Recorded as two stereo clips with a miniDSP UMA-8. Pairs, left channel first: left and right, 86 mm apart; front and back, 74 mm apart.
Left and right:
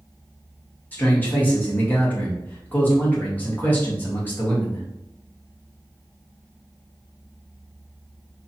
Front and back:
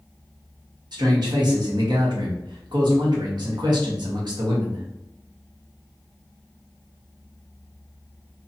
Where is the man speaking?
160° left, 1.1 m.